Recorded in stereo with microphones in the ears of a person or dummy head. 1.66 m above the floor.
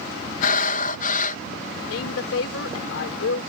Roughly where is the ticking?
I don't hear ticking.